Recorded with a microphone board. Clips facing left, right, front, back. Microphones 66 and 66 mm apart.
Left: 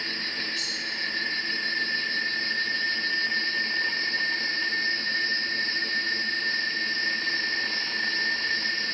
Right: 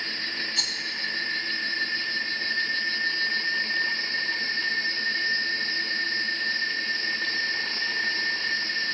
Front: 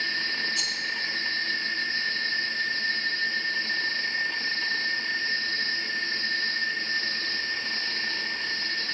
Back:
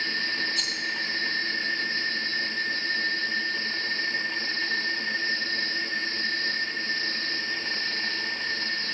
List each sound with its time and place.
0.6 s a rattle: 85° right, 2 m